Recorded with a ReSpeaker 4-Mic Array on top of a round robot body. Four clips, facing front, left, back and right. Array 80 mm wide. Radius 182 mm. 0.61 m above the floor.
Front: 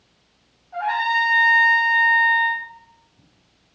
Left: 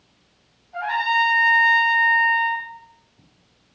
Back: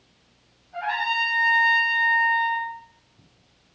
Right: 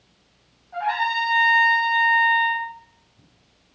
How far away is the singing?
I don't hear singing.